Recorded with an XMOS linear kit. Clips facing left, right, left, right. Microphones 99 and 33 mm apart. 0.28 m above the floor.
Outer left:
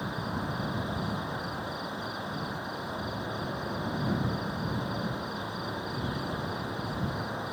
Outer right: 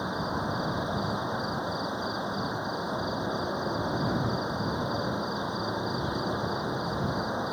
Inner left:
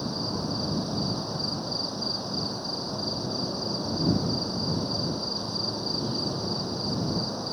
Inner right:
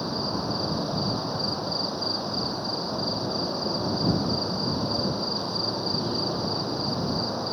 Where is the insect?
20° right (ahead or behind).